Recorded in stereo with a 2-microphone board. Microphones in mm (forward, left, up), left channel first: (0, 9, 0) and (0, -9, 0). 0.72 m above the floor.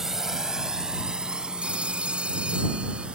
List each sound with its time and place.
0.0 s a drone: 20° right (ahead or behind); by 3.2 s 60° right (ahead or behind)
1.6 s a phone ringing: 80° right